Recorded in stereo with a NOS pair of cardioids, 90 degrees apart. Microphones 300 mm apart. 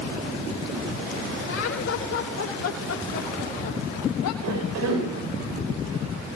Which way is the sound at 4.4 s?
60° right.